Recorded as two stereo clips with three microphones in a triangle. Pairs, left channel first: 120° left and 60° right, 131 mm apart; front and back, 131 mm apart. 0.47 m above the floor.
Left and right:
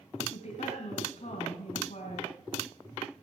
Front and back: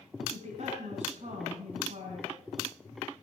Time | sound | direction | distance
0.3 | a woman speaking | 150° left | 4 m